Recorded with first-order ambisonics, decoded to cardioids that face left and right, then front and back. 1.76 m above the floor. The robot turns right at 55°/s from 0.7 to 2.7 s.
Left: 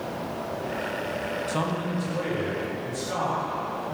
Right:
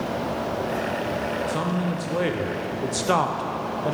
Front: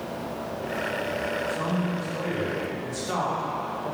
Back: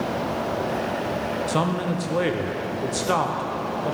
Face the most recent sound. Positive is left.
turn(degrees=-120)